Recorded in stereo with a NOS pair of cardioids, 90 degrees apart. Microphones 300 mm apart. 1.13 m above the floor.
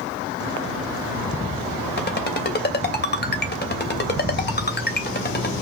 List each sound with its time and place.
2.0 s a ringtone: 35° left, 2.5 m